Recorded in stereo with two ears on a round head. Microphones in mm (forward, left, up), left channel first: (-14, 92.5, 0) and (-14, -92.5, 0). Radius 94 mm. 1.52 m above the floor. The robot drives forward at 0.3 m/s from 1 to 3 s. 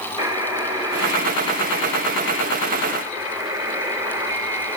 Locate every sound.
0.2 s a buzzer: 25° right (ahead or behind), 2 m; by 4.8 s 20° right (ahead or behind), 2.5 m